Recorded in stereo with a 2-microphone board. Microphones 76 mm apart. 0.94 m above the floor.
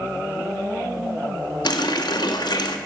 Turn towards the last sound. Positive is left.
turn(degrees=70)  # may be behind; listen again after turning